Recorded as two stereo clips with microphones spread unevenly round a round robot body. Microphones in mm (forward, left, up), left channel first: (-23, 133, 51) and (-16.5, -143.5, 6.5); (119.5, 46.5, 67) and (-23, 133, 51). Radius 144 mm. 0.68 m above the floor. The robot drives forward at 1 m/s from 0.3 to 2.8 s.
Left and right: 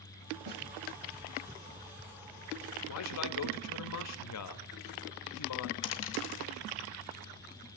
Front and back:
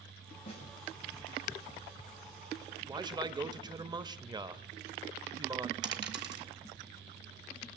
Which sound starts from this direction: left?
A man speaking, at 2.9 s.